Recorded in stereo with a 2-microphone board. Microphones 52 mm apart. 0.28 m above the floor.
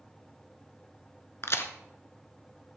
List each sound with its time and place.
1.4 s a crack: 55° left (ahead or behind), 0.7 m